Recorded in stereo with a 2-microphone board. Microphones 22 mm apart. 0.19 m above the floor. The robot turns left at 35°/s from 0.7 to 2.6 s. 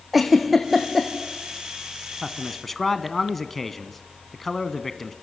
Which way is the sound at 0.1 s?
Centre (ahead or behind).